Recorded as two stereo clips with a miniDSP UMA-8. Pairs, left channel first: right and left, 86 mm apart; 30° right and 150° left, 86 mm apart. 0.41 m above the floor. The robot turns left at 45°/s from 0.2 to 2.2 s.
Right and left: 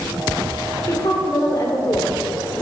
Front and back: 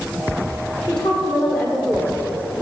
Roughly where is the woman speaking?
Right.